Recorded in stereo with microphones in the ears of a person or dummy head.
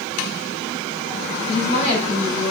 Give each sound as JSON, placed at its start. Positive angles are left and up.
{"t": 1.5, "sound": "a woman speaking", "side_deg": 40, "distance_m": 3.0}